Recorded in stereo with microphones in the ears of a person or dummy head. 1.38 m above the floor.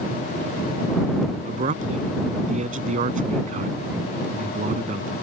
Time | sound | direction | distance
1.4 | a man speaking | 40° right (ahead or behind) | ?